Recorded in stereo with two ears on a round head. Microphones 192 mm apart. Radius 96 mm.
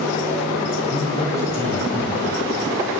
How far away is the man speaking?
About 6 m.